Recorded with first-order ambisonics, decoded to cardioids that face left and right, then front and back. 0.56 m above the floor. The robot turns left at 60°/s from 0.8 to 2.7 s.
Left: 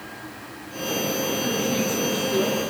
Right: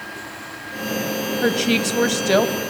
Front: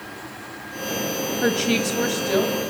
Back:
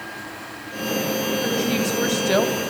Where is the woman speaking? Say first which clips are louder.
Right 5 dB, front 1 dB; 55° right, 3 m; by 2.6 s 120° right, 3 m.